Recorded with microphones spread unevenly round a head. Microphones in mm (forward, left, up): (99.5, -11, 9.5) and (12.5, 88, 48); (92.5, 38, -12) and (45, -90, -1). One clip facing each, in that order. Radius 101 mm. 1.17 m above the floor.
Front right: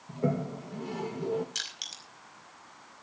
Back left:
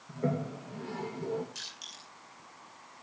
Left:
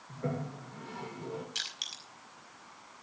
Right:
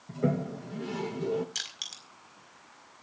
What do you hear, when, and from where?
0.1 s a toilet flushing: 120° right, 1.2 m
1.6 s crushing: 75° right, 5 m